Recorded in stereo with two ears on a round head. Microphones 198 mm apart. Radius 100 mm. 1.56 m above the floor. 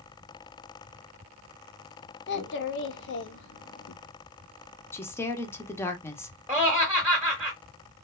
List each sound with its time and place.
2.3 s a child speaking: 50° left (ahead or behind), 0.5 m
4.9 s a woman speaking: 10° left (ahead or behind), 0.6 m
6.5 s laughter: 5° right (ahead or behind), 0.8 m